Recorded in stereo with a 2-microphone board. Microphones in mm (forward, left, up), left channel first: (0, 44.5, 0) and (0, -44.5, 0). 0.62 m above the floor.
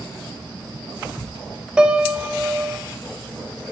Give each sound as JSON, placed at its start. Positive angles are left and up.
{"t": 1.8, "sound": "a piano", "side_deg": -10, "distance_m": 0.6}